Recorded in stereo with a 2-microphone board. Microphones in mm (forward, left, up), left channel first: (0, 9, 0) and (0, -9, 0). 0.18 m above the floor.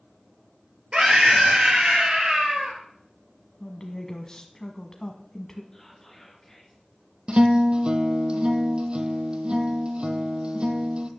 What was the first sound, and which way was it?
A scream, 50° right (ahead or behind).